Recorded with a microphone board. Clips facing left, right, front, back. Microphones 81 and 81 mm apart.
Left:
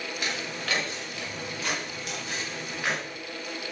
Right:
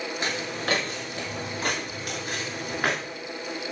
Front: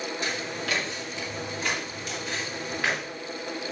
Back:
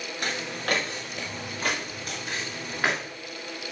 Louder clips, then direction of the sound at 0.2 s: Right 4 dB, back 1 dB; 145° right.